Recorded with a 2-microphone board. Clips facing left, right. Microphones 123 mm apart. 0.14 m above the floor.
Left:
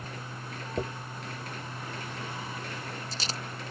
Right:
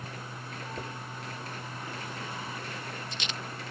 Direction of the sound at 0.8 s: 40° left (ahead or behind).